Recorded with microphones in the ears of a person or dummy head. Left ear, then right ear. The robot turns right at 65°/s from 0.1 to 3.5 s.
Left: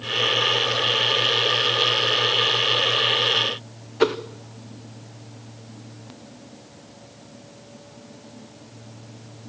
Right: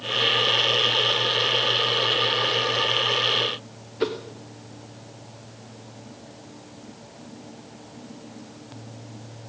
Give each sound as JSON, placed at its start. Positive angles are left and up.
{"t": 4.0, "sound": "a whoosh", "side_deg": 35, "distance_m": 0.9}